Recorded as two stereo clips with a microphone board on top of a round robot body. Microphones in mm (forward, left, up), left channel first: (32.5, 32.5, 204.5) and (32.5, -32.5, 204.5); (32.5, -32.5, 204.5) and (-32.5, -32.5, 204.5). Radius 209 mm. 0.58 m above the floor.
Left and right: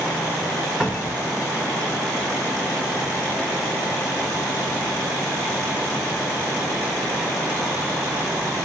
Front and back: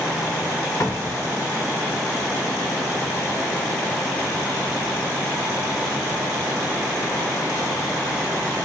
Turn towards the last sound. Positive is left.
turn(degrees=-5)